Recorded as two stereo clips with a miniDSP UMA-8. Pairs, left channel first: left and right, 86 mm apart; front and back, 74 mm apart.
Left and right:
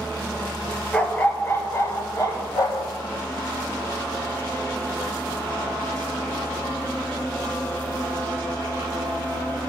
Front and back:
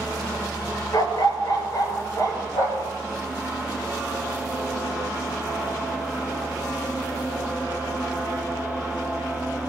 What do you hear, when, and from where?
0.9 s a dog barking: 15° left, 0.9 m; by 2.9 s 45° left, 1.8 m